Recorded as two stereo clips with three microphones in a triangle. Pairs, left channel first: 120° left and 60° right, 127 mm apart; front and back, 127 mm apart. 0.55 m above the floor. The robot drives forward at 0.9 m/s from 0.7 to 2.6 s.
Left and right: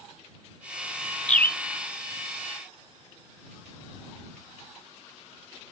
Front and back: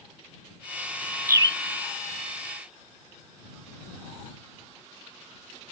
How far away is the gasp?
No gasp in this recording.